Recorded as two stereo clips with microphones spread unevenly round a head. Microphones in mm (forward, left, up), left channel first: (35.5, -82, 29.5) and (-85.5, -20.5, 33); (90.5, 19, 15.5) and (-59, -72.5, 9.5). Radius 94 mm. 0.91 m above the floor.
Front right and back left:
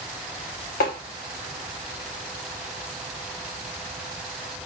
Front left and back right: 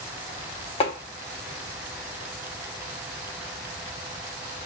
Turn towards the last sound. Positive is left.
turn(degrees=-25)